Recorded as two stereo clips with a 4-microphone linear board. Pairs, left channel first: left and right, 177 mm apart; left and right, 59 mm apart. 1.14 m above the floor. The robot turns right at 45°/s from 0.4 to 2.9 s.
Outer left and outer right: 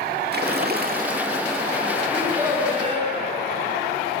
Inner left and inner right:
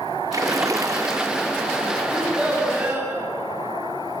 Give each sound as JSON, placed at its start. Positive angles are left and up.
{"t": 0.3, "sound": "a splash", "azimuth_deg": -90, "distance_m": 1.2}
{"t": 2.1, "sound": "a child speaking", "azimuth_deg": 180, "distance_m": 7.5}